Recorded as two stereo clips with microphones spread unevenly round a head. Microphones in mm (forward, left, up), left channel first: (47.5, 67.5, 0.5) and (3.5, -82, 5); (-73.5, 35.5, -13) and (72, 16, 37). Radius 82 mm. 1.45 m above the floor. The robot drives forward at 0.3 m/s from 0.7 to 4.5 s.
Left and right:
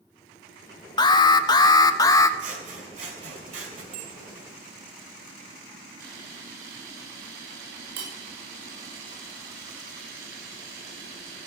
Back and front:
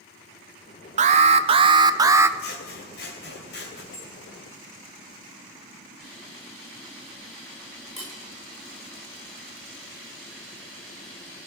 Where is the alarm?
30° left, 0.7 m; by 2.3 s 90° left, 0.6 m.